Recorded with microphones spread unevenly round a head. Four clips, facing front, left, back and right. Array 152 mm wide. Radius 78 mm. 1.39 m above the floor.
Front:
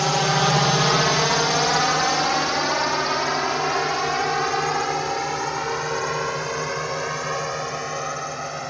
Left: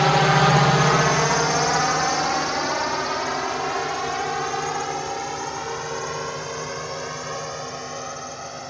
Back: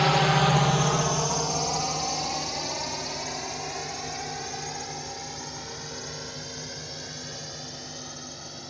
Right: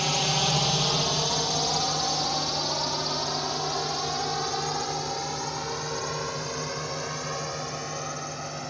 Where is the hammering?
I don't hear hammering.